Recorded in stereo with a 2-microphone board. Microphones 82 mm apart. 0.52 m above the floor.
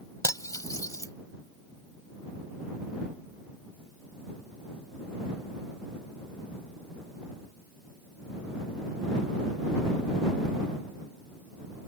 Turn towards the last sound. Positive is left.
turn(degrees=45)  # may be behind; listen again after turning